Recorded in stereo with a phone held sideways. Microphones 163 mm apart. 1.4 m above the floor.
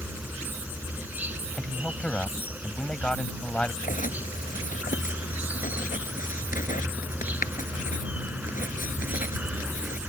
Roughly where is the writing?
Left.